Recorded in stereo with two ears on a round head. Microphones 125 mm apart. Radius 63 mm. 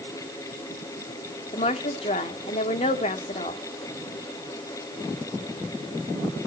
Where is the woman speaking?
45° left (ahead or behind), 1.7 m.